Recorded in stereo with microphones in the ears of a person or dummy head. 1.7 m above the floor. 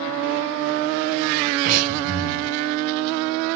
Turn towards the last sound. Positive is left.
turn(degrees=-40)  # may be behind; listen again after turning